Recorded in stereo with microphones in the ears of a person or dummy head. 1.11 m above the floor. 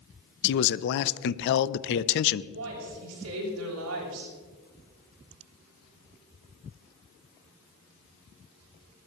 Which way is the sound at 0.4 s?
60° left (ahead or behind).